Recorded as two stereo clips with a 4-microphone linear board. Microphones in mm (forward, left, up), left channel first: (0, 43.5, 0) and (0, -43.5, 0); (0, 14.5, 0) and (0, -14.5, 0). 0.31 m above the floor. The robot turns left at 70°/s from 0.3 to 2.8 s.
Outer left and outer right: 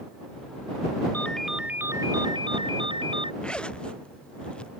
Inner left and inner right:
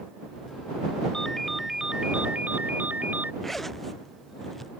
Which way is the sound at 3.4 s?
10° left (ahead or behind).